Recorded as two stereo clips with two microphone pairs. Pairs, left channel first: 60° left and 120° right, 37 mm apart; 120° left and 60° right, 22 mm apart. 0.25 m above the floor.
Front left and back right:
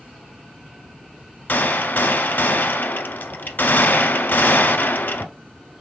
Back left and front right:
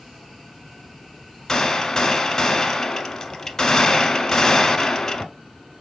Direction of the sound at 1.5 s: 55° left.